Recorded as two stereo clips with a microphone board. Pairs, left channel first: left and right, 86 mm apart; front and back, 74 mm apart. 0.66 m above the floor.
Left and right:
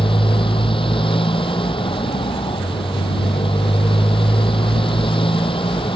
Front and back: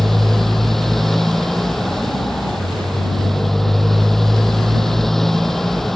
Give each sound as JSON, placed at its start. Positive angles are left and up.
{"t": 0.0, "sound": "a motorcycle", "azimuth_deg": 85}